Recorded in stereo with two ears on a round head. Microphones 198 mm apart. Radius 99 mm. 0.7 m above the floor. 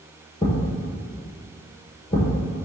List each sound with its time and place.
0.4 s a thud: 20° left (ahead or behind), 1.8 m